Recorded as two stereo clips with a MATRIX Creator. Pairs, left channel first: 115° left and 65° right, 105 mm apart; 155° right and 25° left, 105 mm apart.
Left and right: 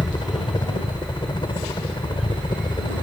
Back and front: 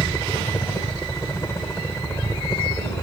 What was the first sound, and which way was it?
A helicopter, 145° left.